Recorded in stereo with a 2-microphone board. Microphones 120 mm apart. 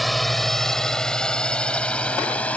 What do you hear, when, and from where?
0.0 s a drone: centre (ahead or behind); by 2.6 s 10° left (ahead or behind)